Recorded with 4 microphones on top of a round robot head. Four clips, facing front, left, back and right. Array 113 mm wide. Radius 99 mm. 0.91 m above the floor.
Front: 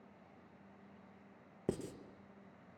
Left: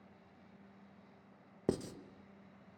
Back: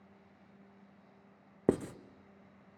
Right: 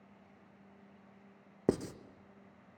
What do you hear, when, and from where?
1.7 s writing: 155° right, 0.9 m